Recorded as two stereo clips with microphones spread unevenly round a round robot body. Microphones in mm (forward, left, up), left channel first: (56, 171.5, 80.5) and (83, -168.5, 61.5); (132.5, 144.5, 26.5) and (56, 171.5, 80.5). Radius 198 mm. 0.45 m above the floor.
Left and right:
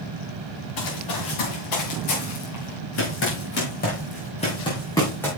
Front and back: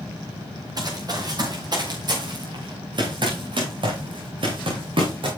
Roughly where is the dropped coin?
I don't hear a dropped coin.